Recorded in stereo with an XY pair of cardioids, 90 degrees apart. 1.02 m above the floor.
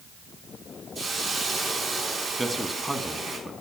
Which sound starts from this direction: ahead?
A man speaking, at 2.4 s.